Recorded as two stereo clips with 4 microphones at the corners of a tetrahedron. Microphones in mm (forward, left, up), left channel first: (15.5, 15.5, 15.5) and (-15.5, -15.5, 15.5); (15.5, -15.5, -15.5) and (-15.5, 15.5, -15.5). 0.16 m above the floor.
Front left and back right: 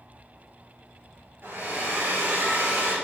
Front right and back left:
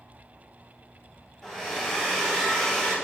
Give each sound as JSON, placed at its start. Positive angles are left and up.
{"t": 1.4, "sound": "a hair dryer", "azimuth_deg": -125, "distance_m": 2.5}